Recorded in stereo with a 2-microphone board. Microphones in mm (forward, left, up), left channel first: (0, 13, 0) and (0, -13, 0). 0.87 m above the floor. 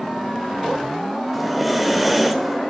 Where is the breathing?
10° right (ahead or behind), 1.6 m.